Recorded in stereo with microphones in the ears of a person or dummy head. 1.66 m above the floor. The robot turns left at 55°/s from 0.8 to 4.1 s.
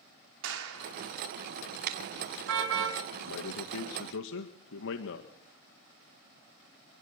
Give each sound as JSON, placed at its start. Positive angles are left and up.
{"t": 0.4, "sound": "a clap", "side_deg": -75, "distance_m": 4.0}
{"t": 1.9, "sound": "a car horn", "side_deg": -55, "distance_m": 5.5}
{"t": 3.2, "sound": "a man speaking", "azimuth_deg": 120, "distance_m": 1.9}